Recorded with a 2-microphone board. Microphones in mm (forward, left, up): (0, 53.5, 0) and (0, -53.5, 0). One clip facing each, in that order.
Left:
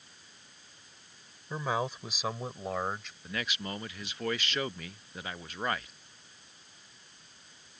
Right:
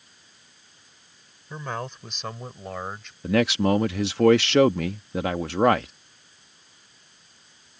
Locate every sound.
1.5 s a man speaking: 5° left (ahead or behind); by 3.1 s centre (ahead or behind)
3.2 s a man speaking: 80° right